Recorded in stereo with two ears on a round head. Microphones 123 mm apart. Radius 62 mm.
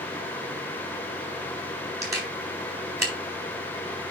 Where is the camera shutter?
25° right (ahead or behind), 3.5 m.